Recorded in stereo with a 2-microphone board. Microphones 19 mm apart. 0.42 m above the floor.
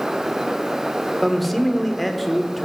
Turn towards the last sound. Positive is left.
turn(degrees=5)  # may be behind; listen again after turning